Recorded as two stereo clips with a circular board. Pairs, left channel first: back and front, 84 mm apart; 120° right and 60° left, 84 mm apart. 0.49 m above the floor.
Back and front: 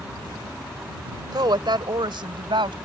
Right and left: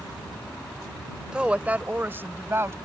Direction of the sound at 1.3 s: 20° right.